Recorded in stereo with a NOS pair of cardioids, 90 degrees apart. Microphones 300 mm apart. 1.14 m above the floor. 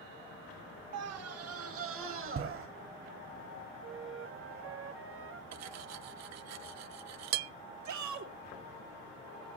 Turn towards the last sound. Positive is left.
turn(degrees=-70)